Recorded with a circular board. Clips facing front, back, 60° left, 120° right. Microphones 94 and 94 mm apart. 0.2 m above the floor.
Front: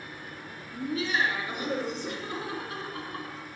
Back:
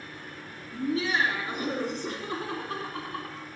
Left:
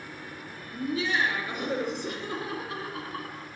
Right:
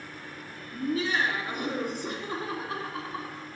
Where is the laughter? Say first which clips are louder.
Back 2 dB, even; 130° right, 3 m; by 3.5 s 170° right, 1.8 m.